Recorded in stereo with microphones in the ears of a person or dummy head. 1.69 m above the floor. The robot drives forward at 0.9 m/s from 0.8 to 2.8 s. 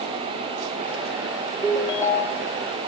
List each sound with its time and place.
1.6 s a ringtone: 15° left (ahead or behind), 2 m; by 2.5 s 25° left (ahead or behind), 1.4 m